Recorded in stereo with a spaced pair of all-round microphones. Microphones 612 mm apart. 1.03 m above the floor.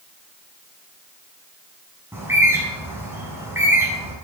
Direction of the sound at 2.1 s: 5° right (ahead or behind).